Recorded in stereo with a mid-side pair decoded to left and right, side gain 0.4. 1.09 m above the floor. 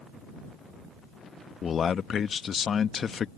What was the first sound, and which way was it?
A man speaking, 50° left.